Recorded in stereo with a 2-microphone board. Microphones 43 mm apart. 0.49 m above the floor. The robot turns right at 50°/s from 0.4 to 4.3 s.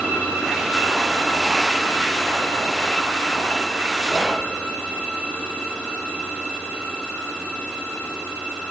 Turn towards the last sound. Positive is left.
turn(degrees=-5)  # may be behind; listen again after turning